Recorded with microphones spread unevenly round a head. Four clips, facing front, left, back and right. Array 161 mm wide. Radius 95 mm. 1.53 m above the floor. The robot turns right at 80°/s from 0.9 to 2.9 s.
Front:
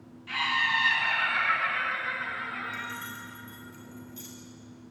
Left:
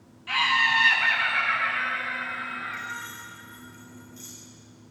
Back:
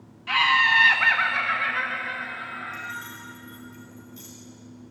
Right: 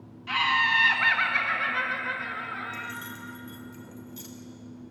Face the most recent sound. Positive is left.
turn(degrees=-80)